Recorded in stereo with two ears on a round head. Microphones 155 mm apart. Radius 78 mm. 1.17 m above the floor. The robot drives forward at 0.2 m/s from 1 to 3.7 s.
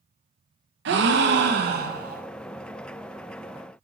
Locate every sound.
0.8 s a gasp: 70° right (ahead or behind), 0.5 m; by 2.2 s 55° right (ahead or behind), 0.6 m